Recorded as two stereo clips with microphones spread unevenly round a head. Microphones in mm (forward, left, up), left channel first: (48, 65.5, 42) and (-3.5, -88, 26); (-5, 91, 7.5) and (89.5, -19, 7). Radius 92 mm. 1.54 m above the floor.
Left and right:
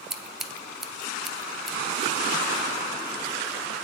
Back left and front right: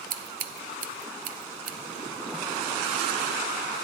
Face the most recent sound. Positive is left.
turn(degrees=-20)